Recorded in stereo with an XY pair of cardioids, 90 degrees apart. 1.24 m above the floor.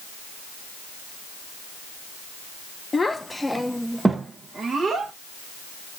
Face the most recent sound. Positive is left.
turn(degrees=-55)